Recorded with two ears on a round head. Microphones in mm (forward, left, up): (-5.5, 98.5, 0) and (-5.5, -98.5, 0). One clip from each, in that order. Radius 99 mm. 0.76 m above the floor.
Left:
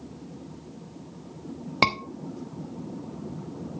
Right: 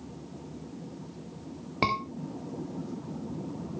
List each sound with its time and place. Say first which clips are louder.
1.8 s a scream: left 5 dB; 50° left (ahead or behind), 1.2 m